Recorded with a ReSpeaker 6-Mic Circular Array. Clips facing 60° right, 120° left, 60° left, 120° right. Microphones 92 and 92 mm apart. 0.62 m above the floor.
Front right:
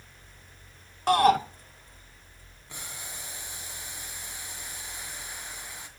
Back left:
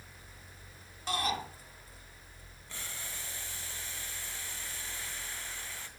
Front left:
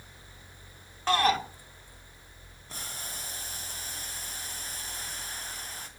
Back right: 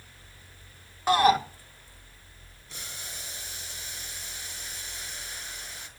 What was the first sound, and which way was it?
A shout, 45° right.